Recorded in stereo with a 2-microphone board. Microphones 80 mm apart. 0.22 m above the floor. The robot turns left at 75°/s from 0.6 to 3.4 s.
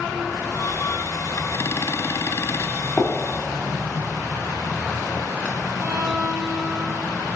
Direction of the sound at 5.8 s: 25° right (ahead or behind).